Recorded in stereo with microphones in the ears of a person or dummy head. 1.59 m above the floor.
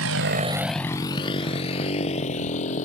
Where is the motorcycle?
70° right (ahead or behind); by 2.9 s 40° left (ahead or behind).